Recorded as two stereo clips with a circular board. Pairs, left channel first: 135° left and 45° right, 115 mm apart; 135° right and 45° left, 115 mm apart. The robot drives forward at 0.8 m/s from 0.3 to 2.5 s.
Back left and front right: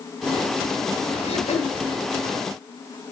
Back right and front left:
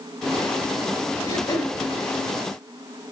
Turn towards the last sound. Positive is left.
turn(degrees=170)